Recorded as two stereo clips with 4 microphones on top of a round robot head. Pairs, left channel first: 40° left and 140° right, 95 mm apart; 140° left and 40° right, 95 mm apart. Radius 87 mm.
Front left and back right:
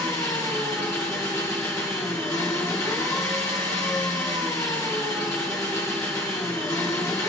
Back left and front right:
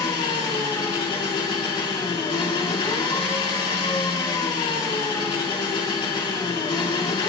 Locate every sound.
0.0 s an engine running: 100° left, 2.5 m